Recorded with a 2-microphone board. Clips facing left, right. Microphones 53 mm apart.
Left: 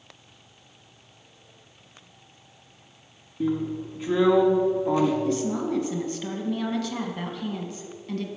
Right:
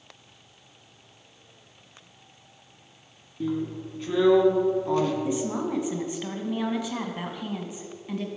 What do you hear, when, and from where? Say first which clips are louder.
3.4 s a drill: left 3 dB; 15° left (ahead or behind), 1.3 m
5.2 s a woman speaking: left 2 dB; 15° right (ahead or behind), 1.4 m